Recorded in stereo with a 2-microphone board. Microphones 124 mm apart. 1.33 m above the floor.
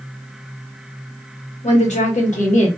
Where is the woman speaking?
70° left (ahead or behind), 1.9 m; by 2.7 s 85° left, 1.6 m.